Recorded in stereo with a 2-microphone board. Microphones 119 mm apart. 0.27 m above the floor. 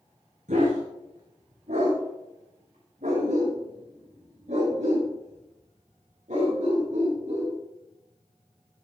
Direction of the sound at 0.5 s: 80° right.